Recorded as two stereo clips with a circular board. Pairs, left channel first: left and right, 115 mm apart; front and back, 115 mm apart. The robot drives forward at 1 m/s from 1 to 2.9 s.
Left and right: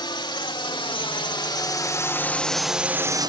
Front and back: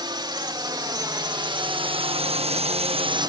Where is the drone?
135° left; by 3.3 s 130° right.